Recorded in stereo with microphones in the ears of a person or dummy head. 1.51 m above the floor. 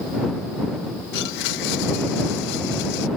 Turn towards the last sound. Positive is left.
turn(degrees=60)  # may be behind; listen again after turning